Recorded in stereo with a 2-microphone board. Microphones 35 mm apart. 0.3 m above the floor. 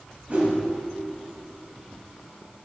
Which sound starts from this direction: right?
A whoosh, at 0.3 s.